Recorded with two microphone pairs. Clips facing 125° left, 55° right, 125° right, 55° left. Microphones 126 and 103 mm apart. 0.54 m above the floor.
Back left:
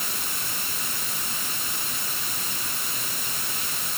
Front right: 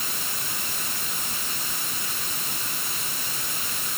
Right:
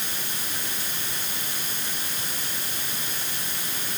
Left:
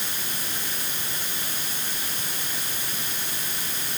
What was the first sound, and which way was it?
Only background noise.